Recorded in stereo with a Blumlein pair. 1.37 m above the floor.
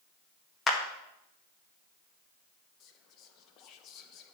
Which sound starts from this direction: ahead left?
Whispering, at 2.8 s.